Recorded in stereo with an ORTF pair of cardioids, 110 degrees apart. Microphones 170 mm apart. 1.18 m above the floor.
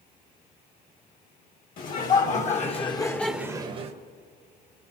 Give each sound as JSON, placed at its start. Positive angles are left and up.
{"t": 1.8, "sound": "laughter", "azimuth_deg": 55, "distance_m": 2.5}